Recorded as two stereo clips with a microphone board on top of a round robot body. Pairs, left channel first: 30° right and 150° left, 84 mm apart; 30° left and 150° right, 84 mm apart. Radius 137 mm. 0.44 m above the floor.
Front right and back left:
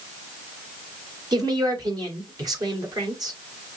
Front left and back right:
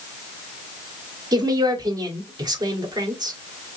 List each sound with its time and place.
1.3 s a woman speaking: straight behind, 2.5 m